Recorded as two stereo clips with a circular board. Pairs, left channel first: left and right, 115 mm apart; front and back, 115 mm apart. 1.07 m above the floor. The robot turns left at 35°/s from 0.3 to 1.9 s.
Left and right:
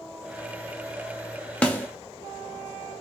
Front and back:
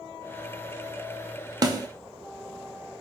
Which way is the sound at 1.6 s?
165° left.